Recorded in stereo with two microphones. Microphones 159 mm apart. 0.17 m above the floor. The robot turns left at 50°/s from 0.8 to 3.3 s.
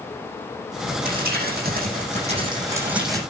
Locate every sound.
1.1 s crumpling: 75° right, 8.5 m; by 3.2 s 175° left, 8.5 m